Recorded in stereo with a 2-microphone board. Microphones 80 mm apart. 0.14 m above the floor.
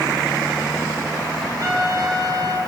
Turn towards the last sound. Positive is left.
turn(degrees=-45)  # may be behind; listen again after turning